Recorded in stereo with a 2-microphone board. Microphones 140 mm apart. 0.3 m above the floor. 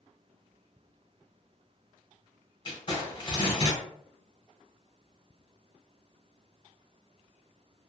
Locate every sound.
2.6 s crumpling: 35° left (ahead or behind), 1.5 m